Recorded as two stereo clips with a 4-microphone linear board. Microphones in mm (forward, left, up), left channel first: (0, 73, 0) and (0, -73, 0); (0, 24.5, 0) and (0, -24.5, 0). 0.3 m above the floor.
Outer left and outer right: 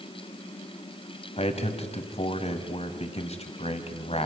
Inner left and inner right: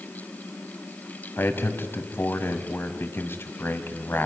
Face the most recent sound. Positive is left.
turn(degrees=45)  # may be behind; listen again after turning